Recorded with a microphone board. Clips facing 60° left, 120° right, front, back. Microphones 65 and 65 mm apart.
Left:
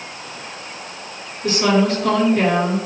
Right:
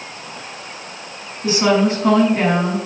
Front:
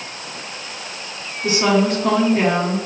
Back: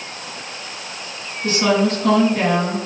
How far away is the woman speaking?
About 1.8 m.